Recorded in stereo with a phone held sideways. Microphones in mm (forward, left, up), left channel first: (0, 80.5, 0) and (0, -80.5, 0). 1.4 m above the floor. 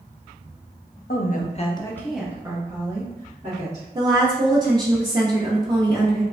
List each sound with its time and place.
1.1 s a woman speaking: 70° left (ahead or behind), 0.7 m; by 3.9 s 45° right (ahead or behind), 1.4 m
4.0 s a woman speaking: 25° right (ahead or behind), 0.6 m